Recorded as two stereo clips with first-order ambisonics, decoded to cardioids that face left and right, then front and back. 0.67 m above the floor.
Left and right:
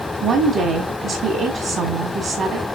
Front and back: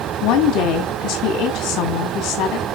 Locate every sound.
0.2 s a woman speaking: 35° right, 1.8 m